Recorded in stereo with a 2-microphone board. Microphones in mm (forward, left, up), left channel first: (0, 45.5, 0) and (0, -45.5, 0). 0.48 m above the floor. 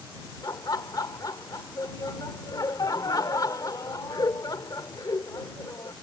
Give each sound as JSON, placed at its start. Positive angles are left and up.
{"t": 0.4, "sound": "laughter", "side_deg": 45}